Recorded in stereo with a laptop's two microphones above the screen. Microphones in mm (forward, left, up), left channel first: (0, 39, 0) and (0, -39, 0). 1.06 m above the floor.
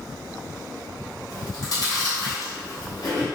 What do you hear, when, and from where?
1.3 s chewing: 50° left (ahead or behind), 0.9 m